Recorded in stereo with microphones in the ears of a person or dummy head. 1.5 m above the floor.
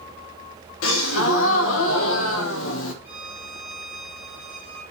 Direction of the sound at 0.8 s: 85° left.